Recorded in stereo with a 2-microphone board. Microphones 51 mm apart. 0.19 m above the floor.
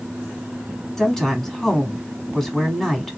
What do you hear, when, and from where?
1.0 s a woman speaking: 5° left (ahead or behind), 1.2 m